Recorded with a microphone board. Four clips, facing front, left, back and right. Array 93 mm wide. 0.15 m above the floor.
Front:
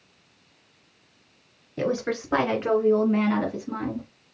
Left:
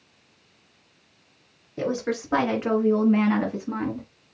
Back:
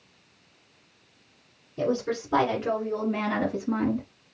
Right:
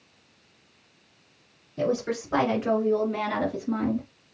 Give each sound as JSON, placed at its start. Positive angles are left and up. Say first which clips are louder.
{"t": 1.8, "sound": "a woman speaking", "louder": "even, front 1 dB", "azimuth_deg": 25, "distance_m": 2.5}